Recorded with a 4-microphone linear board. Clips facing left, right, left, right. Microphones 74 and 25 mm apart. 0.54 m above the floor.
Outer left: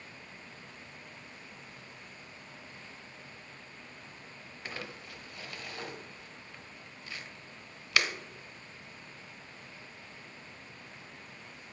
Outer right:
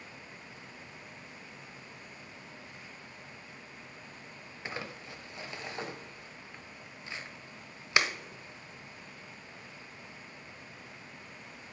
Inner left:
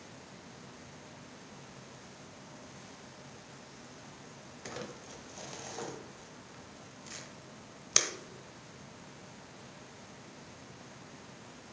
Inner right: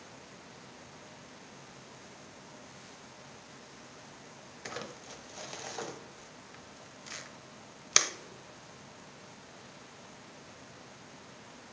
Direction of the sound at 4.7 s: 20° right (ahead or behind).